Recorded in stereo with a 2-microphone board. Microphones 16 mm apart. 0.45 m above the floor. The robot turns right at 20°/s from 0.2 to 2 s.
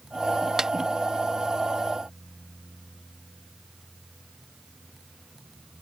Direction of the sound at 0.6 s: 35° right (ahead or behind).